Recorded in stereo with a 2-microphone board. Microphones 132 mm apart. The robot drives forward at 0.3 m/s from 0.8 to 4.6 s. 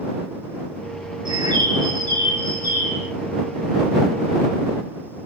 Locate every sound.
1.2 s a bird: 35° right (ahead or behind), 0.6 m; by 3.1 s 20° right (ahead or behind), 1.1 m